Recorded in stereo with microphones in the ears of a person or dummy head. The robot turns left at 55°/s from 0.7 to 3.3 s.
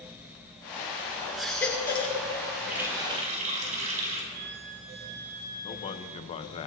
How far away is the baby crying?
About 1.7 m.